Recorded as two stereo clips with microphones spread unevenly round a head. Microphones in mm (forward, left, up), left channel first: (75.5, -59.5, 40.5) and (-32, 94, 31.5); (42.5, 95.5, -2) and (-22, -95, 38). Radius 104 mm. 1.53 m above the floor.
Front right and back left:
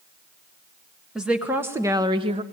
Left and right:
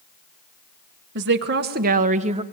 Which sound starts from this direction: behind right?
A woman speaking, at 1.1 s.